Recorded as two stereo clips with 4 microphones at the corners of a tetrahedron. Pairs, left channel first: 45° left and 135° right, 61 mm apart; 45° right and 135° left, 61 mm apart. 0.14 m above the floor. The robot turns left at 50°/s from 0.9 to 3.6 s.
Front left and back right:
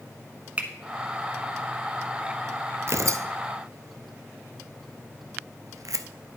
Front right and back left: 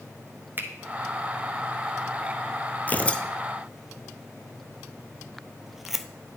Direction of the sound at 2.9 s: 100° right.